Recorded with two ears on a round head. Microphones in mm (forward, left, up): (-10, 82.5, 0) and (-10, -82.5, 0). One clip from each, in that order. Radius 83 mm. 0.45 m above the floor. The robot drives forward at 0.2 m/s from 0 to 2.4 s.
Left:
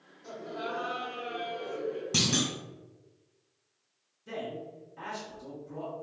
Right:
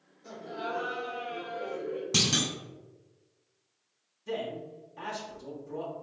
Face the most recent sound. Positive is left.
turn(degrees=-10)  # may be behind; listen again after turning